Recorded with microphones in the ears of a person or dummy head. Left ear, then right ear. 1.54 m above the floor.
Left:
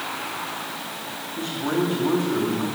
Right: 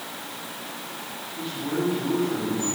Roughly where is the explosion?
No explosion in this recording.